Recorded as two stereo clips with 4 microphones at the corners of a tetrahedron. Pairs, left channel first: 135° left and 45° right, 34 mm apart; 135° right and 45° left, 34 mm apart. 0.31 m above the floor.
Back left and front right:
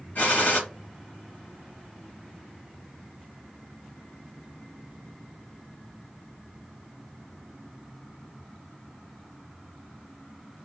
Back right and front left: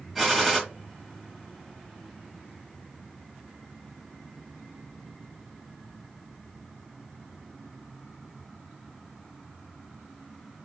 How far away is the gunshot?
About 2 m.